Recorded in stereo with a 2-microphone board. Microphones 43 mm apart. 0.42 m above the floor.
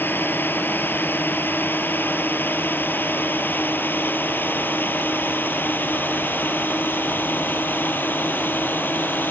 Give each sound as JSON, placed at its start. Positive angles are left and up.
{"t": 0.0, "sound": "a drone", "side_deg": 50}